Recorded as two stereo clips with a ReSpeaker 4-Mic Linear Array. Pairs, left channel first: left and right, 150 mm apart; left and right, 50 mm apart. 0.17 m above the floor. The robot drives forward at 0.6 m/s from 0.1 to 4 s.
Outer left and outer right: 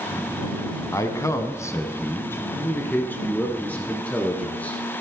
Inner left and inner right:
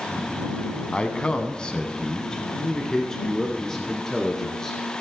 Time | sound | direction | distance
0.9 | a man speaking | 20° left (ahead or behind) | 1.0 m